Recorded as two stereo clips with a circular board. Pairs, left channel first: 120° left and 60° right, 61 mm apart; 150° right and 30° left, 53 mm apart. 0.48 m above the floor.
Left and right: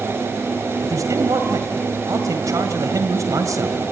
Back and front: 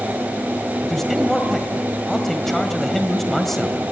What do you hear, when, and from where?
0.8 s a man speaking: 65° right, 2 m